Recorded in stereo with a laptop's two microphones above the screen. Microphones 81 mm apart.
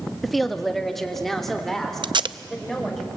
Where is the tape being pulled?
65° right (ahead or behind), 0.5 m.